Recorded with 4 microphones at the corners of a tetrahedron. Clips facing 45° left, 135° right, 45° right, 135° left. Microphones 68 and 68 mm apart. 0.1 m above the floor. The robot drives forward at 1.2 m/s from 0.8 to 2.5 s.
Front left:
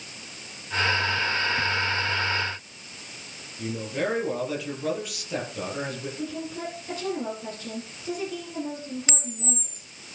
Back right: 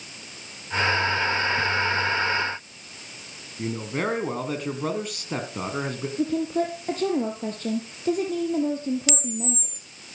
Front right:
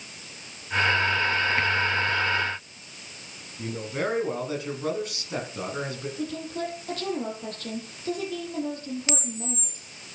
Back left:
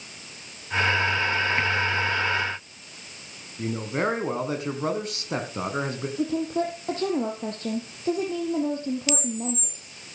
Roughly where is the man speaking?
Behind.